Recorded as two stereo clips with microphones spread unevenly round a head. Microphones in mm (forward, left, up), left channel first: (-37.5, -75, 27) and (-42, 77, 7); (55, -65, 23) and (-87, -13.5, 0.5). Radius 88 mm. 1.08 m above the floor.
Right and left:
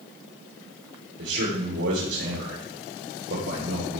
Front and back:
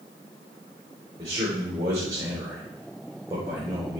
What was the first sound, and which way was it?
A man speaking, 90° left.